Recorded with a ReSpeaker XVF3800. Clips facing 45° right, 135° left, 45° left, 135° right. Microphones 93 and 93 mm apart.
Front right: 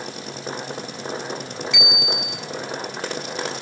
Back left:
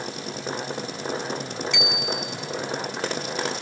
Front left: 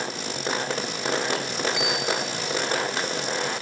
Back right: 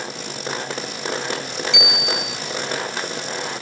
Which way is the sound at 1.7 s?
135° right.